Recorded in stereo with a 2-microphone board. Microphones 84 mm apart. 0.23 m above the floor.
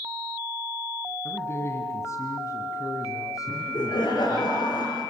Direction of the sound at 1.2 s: 30° left (ahead or behind).